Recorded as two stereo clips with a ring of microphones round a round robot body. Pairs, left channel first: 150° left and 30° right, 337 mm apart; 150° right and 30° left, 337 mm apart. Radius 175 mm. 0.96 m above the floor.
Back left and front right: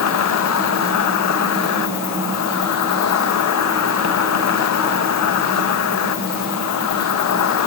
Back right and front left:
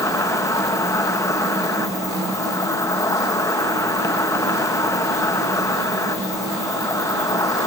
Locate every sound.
0.0 s an insect: 130° left